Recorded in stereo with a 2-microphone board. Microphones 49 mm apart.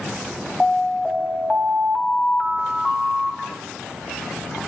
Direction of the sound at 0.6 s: 15° left (ahead or behind).